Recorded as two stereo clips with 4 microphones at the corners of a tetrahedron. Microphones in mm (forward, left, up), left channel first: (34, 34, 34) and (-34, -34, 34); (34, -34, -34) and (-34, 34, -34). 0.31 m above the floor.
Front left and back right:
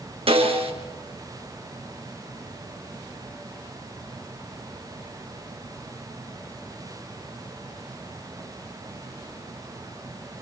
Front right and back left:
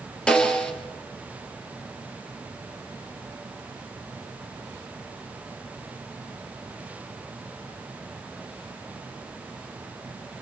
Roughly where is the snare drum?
Behind right.